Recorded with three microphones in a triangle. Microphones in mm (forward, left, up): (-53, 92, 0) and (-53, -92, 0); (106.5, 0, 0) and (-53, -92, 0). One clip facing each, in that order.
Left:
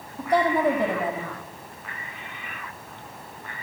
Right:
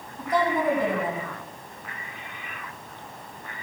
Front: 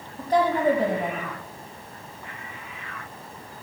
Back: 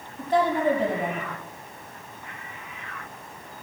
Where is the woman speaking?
75° left, 5.5 m.